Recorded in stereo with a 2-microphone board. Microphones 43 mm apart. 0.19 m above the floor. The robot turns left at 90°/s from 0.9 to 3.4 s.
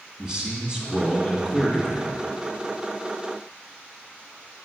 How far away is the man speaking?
About 1.6 m.